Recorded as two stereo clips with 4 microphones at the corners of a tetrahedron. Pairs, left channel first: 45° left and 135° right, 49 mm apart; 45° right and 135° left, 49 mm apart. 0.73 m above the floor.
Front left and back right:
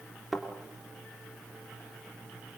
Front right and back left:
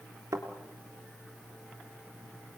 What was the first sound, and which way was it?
A thud, 135° left.